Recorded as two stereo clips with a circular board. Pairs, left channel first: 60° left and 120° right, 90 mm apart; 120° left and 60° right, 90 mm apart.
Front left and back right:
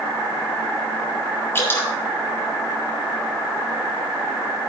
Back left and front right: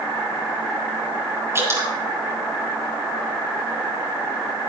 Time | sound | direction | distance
1.6 | dripping | straight ahead | 2.5 m